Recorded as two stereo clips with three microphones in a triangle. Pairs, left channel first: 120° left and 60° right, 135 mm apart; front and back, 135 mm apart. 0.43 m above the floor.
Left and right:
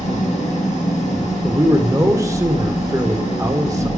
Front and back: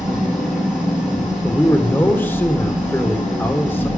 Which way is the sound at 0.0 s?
95° left.